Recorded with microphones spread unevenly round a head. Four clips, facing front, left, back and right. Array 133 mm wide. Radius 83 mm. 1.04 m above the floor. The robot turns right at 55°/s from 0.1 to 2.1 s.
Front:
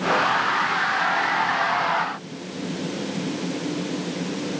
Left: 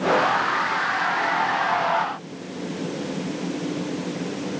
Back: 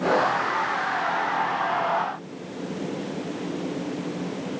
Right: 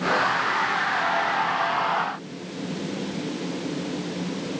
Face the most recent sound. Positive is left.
No sound to turn to.